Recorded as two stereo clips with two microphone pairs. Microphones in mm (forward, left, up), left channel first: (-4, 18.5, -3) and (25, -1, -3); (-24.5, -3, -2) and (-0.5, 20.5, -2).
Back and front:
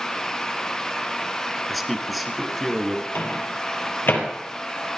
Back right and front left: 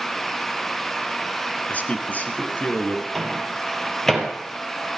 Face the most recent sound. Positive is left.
turn(degrees=140)